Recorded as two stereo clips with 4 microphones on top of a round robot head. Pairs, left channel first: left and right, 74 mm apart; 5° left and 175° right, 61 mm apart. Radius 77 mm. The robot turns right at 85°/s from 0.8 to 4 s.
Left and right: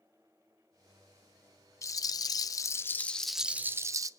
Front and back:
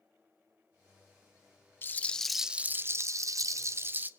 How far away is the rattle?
About 0.7 m.